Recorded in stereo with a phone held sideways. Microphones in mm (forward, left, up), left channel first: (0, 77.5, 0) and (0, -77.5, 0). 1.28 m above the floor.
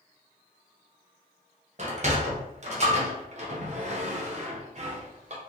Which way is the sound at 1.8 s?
45° right (ahead or behind).